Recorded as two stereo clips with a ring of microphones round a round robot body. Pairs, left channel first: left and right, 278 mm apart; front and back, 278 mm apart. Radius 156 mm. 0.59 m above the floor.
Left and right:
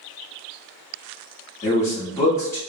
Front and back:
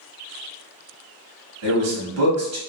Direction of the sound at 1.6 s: 170° left.